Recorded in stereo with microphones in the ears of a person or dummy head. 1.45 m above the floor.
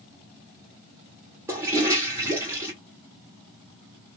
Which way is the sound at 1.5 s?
15° right (ahead or behind).